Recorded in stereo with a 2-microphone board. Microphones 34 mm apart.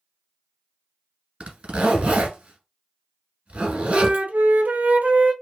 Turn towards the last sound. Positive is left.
turn(degrees=-50)  # may be behind; listen again after turning